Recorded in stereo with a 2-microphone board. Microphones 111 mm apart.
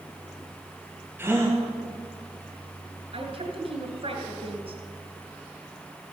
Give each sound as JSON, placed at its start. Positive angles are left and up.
{"t": 1.2, "sound": "a gasp", "side_deg": -20, "distance_m": 2.0}
{"t": 3.1, "sound": "a woman speaking", "side_deg": -60, "distance_m": 2.5}